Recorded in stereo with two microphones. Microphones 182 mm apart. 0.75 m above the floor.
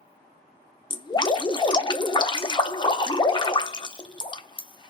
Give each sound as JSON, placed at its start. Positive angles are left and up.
{"t": 0.9, "sound": "dripping", "side_deg": 25, "distance_m": 0.6}